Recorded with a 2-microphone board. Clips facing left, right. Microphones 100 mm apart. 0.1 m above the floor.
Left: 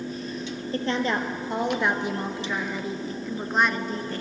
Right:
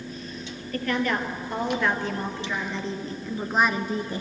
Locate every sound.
0.7 s a woman speaking: 25° left (ahead or behind), 2.5 m; by 4.2 s 15° right (ahead or behind), 1.5 m